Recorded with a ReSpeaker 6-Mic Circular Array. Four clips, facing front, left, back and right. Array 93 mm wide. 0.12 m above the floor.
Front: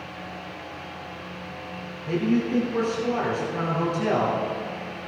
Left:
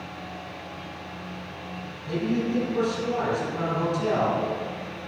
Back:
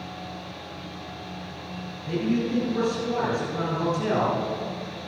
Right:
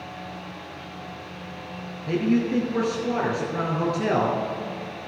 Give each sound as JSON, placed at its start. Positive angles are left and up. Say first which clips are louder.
{"t": 2.1, "sound": "a man speaking", "louder": "right 4 dB, front 2 dB", "azimuth_deg": -70, "distance_m": 2.5}